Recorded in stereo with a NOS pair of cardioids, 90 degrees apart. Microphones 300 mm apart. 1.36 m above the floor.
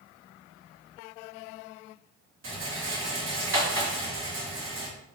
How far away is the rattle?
About 2.0 m.